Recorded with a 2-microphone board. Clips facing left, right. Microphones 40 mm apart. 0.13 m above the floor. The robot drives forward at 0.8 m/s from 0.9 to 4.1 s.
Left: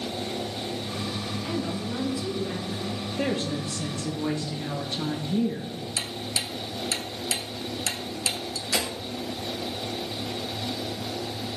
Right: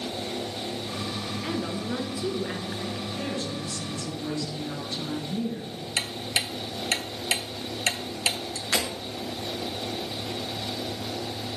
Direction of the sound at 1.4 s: 35° right (ahead or behind).